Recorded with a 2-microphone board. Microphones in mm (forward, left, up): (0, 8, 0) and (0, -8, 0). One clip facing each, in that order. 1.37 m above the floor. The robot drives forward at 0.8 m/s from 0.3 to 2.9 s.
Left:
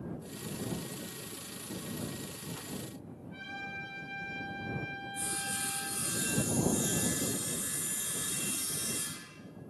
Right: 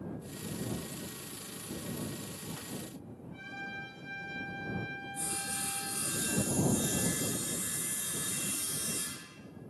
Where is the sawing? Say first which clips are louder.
Left 2 dB; 60° left (ahead or behind), 5 m.